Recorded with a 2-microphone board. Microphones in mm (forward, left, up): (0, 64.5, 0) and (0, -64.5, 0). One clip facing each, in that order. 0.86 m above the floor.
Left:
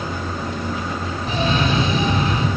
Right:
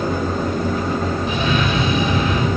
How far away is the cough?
About 3.5 m.